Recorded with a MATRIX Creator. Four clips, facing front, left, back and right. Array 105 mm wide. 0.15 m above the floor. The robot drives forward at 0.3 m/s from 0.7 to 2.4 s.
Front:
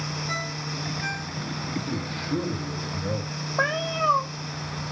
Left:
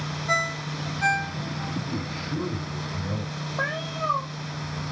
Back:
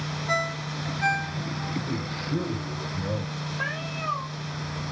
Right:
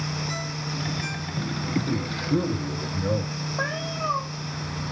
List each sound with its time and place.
0.3 s a ringtone: 115° left, 0.8 m; by 1.8 s 135° left, 0.9 m
1.9 s a man speaking: 80° right, 7 m
3.6 s a cat meowing: straight ahead, 1.3 m